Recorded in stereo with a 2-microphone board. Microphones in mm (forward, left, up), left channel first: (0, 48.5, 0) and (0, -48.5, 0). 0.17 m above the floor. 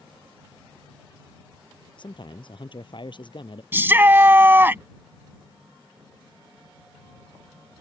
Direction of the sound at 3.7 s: 20° right (ahead or behind).